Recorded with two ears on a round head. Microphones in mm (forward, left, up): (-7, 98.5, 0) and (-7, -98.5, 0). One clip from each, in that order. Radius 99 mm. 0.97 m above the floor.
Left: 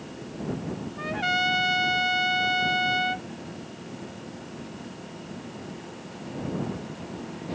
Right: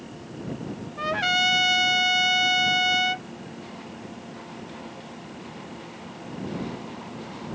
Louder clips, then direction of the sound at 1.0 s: Right 3 dB; 45° right (ahead or behind).